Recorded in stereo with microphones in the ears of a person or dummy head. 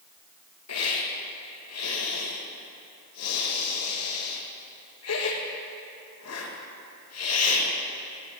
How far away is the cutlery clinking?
I don't hear cutlery clinking.